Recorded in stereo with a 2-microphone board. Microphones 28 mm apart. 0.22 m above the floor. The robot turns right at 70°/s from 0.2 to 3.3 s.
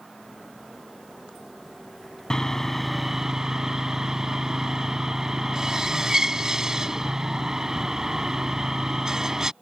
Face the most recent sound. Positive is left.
turn(degrees=-145)